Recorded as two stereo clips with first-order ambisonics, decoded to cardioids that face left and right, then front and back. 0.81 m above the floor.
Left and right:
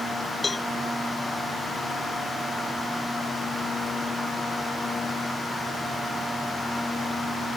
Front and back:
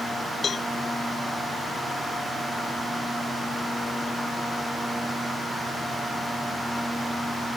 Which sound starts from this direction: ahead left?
A cowbell, at 0.4 s.